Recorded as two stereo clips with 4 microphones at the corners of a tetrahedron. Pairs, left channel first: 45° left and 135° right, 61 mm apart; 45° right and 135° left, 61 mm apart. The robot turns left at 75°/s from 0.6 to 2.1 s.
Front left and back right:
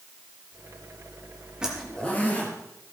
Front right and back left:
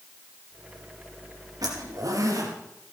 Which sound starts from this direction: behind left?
A zipper, at 1.6 s.